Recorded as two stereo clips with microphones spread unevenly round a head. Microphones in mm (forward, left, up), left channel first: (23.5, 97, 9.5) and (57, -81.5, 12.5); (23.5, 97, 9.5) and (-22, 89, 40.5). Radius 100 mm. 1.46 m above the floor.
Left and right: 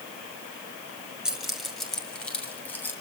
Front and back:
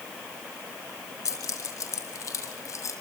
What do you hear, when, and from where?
1.2 s keys jangling: 5° left, 5.5 m; by 2.9 s 20° left, 7.5 m